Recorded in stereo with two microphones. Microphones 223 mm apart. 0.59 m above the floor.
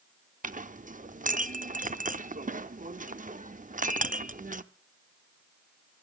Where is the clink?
35° right (ahead or behind), 0.6 m.